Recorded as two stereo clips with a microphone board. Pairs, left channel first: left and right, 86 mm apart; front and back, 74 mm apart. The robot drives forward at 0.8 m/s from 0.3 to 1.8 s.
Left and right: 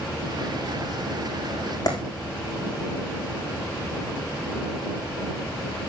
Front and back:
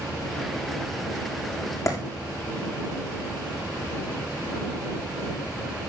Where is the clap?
45° left, 5.5 m.